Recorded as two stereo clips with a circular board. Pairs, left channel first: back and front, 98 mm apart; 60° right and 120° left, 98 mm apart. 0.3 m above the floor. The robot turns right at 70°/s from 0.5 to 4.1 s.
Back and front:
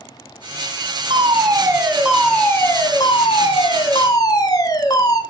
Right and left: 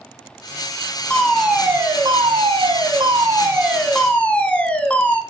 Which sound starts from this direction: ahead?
A fire alarm, at 1.1 s.